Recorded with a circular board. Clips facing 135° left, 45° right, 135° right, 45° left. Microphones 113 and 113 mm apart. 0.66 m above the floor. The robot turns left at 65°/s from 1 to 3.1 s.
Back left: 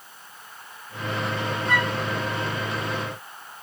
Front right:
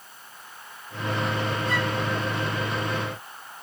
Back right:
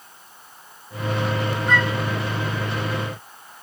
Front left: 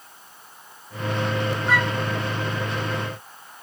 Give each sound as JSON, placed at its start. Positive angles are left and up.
{"t": 1.7, "sound": "a flute", "azimuth_deg": 130}